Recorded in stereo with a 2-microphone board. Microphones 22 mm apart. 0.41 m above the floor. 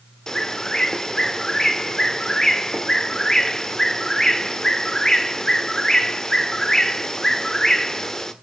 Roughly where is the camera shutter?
No camera shutter in this recording.